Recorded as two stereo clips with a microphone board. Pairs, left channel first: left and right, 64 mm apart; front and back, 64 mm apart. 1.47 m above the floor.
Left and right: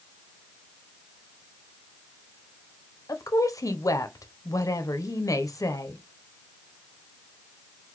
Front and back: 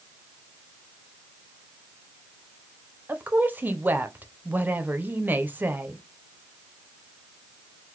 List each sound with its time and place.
3.1 s a woman speaking: 120° left, 0.7 m